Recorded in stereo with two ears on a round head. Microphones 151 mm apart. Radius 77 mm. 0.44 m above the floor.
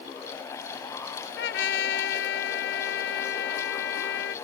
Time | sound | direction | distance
1.4 | a trumpet | 80° left | ?